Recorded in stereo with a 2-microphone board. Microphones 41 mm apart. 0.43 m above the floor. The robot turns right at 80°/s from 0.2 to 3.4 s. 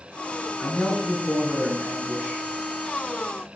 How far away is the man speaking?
About 4.5 m.